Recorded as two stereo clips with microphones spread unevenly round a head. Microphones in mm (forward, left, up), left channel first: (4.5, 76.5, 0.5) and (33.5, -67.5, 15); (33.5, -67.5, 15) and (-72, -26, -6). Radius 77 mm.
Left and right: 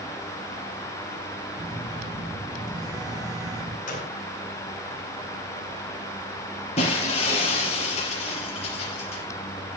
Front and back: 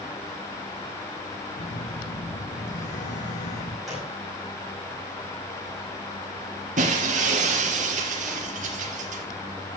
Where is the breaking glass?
155° left, 4.5 m.